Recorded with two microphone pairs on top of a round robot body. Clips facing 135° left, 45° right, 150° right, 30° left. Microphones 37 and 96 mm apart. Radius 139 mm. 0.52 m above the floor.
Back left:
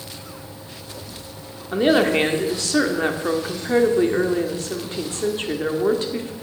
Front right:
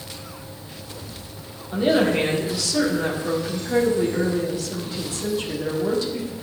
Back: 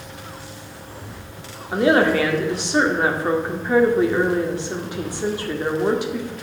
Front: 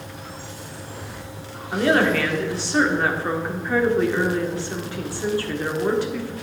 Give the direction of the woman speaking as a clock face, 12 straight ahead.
8 o'clock.